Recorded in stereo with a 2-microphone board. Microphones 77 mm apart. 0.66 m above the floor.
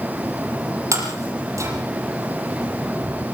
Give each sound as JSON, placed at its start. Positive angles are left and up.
{"t": 0.9, "sound": "breaking glass", "side_deg": -45, "distance_m": 6.5}